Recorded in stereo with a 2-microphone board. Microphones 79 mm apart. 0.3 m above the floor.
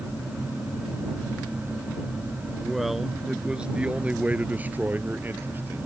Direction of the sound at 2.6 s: Centre (ahead or behind).